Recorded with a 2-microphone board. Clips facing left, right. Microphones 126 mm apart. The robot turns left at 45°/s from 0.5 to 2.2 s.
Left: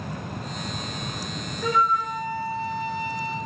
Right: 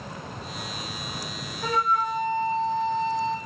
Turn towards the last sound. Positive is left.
turn(degrees=50)  # may be behind; listen again after turning